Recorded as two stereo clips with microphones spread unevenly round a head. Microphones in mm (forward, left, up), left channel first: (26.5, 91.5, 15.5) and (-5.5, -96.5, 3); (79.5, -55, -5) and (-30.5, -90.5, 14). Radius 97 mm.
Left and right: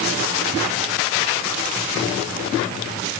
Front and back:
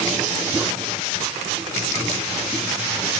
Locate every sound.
Only background noise.